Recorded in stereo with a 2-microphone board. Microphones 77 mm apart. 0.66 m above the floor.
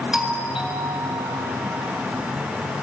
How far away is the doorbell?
About 4 m.